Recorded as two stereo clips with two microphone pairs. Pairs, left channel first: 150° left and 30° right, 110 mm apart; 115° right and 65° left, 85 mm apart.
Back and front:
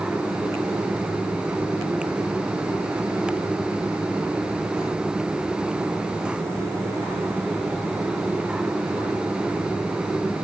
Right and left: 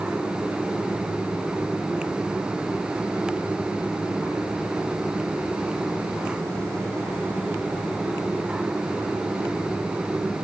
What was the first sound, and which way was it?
Only background noise.